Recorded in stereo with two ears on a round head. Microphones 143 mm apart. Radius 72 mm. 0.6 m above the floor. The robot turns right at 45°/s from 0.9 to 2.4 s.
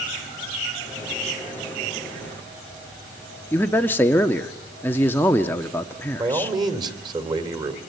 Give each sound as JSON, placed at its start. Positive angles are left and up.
{"t": 3.5, "sound": "a man speaking", "side_deg": 10, "distance_m": 0.9}
{"t": 6.2, "sound": "a man speaking", "side_deg": -25, "distance_m": 2.5}